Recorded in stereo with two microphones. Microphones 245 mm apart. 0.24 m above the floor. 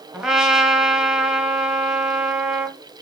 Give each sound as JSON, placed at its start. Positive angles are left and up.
{"t": 0.1, "sound": "a trumpet", "side_deg": 0, "distance_m": 1.4}